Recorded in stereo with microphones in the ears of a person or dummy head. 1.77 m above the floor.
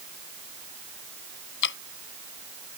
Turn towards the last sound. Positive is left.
turn(degrees=60)  # may be behind; listen again after turning